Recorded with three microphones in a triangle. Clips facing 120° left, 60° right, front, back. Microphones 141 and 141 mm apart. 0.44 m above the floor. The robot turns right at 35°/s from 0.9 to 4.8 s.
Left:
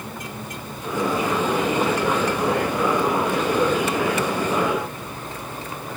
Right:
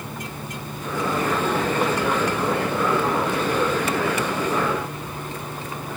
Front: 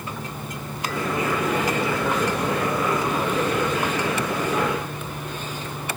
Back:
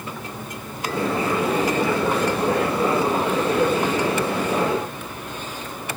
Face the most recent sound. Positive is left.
No sound to turn to.